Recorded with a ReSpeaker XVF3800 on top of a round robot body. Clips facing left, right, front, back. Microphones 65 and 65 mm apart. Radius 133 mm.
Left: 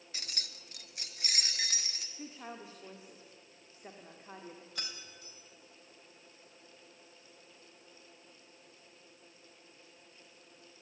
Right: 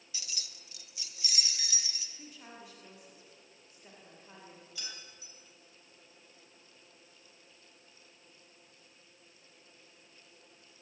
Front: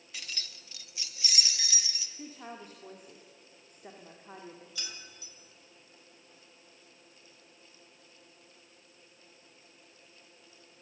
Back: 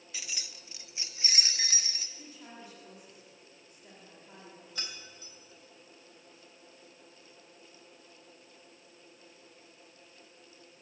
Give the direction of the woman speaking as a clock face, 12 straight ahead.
11 o'clock.